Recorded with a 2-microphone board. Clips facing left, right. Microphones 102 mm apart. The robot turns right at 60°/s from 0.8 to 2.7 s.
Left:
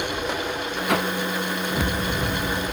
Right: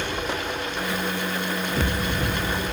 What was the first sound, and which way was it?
A whoosh, 75° left (ahead or behind).